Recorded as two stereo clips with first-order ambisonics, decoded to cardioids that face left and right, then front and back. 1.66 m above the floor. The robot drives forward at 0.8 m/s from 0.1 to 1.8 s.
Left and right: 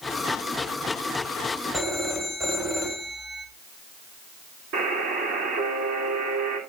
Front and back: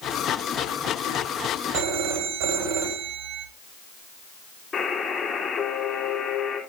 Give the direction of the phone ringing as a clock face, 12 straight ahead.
6 o'clock.